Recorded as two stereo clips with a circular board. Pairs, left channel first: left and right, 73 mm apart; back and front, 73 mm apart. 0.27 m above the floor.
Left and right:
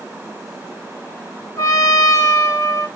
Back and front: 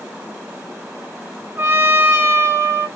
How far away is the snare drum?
No snare drum in this recording.